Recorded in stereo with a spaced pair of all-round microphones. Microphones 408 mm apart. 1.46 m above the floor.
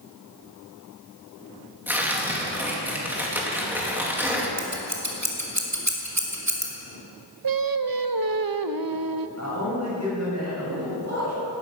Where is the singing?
55° right (ahead or behind), 0.7 m.